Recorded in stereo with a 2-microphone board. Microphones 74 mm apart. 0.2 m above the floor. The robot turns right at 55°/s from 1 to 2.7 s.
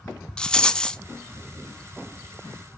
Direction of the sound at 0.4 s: 10° left (ahead or behind).